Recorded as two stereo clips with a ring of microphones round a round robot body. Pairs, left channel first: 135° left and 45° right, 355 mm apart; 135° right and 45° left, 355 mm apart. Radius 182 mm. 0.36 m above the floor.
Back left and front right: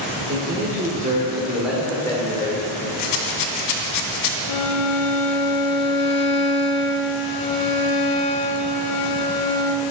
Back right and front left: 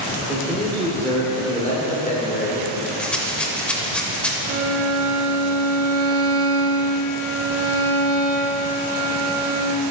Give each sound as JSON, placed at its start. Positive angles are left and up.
{"t": 0.2, "sound": "a man speaking", "azimuth_deg": -40, "distance_m": 1.5}
{"t": 3.0, "sound": "a rattle", "azimuth_deg": 140, "distance_m": 0.6}
{"t": 4.5, "sound": "a violin", "azimuth_deg": 100, "distance_m": 0.5}